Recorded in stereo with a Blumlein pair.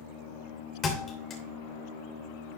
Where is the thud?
25° left, 3 m.